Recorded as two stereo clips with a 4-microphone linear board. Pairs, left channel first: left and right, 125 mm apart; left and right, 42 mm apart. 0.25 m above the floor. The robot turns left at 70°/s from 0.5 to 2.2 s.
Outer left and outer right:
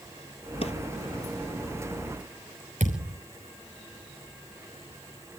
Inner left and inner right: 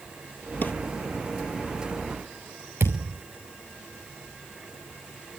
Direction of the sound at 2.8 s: 80° right.